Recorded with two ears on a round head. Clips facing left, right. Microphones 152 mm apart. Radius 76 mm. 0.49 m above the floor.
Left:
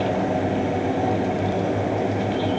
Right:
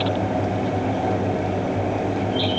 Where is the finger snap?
I don't hear a finger snap.